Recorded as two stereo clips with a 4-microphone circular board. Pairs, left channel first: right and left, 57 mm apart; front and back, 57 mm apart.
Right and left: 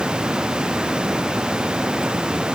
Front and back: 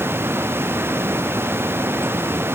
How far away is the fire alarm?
I don't hear a fire alarm.